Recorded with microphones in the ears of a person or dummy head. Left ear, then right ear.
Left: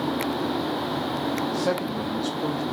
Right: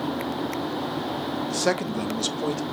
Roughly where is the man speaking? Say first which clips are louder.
Right 1 dB; right.